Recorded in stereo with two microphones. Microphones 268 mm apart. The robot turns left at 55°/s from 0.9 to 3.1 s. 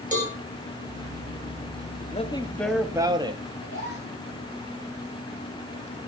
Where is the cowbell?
30° right (ahead or behind), 3.5 m.